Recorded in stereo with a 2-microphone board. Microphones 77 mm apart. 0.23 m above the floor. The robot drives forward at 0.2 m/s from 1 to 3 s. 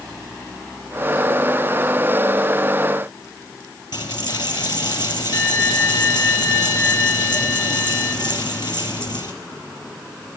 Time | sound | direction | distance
3.9 | a dropped coin | 80° left | 1.1 m